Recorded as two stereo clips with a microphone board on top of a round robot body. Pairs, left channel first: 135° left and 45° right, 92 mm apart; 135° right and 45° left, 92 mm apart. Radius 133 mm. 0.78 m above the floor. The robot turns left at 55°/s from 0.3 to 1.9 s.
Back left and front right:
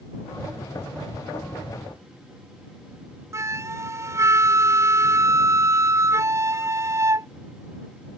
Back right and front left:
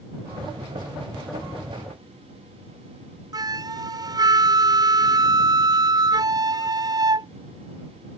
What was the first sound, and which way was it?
A flute, 10° left.